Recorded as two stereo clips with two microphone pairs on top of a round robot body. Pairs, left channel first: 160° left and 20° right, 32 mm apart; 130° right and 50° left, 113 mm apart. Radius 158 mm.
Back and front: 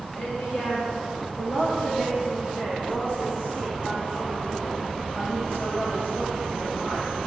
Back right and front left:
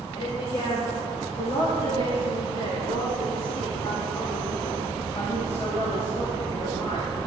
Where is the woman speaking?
170° right, 7 m; by 7.1 s 170° left, 10 m.